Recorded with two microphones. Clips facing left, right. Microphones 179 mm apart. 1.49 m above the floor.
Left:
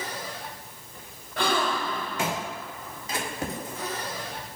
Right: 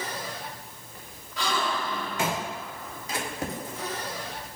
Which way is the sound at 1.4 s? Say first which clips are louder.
Left 3 dB; 55° left (ahead or behind).